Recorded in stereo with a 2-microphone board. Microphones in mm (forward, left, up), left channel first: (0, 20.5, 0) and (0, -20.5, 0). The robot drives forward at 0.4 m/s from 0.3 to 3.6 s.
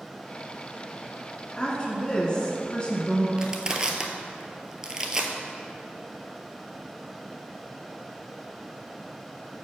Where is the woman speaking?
25° left (ahead or behind), 1.5 m.